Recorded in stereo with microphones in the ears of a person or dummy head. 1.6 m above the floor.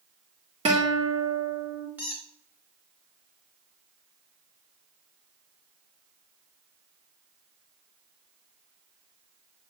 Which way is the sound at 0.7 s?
35° right (ahead or behind).